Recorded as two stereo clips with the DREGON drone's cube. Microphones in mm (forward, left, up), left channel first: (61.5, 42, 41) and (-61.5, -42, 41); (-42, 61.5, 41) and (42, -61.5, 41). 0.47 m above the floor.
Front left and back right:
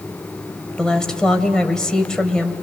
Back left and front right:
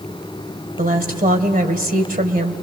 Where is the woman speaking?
50° right, 2.0 m.